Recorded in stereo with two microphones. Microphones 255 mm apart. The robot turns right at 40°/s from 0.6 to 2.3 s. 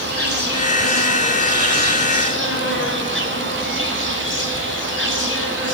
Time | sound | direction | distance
0.0 | an insect | 60° left | 3 m